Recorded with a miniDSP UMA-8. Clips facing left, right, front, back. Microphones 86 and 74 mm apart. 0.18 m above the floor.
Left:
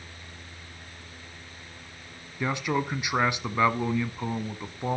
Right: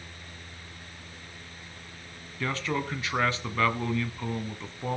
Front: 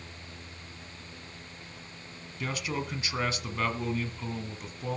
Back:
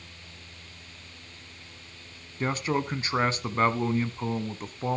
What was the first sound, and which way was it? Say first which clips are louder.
A man speaking: left 3 dB, back 6 dB; 155° left.